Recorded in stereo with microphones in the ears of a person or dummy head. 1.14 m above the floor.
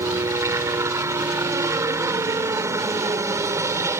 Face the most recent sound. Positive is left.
turn(degrees=-20)  # may be behind; listen again after turning